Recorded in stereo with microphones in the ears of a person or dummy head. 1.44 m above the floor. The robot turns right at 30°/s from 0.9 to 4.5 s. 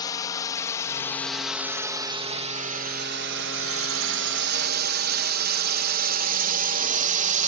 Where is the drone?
20° left (ahead or behind); by 7.5 s 40° right (ahead or behind).